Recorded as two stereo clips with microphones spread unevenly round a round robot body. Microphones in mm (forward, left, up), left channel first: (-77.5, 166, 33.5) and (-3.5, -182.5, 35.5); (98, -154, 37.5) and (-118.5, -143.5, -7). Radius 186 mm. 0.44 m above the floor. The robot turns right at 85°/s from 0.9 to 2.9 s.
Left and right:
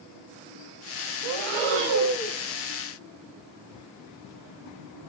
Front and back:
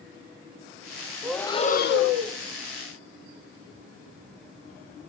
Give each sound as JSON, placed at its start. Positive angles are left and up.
{"t": 1.2, "sound": "breathing", "azimuth_deg": -100, "distance_m": 0.7}